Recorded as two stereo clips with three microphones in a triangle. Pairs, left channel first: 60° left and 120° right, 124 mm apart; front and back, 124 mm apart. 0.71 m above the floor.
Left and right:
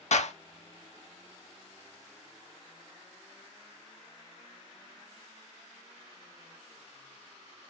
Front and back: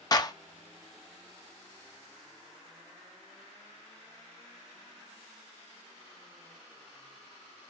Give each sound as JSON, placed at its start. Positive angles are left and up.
{"t": 0.1, "sound": "a clap", "azimuth_deg": 55, "distance_m": 0.6}